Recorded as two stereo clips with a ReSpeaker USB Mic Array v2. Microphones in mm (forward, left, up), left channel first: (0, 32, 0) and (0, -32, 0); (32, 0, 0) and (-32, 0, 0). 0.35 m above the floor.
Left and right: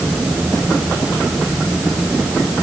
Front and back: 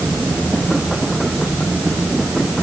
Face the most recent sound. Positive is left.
No sound to turn to.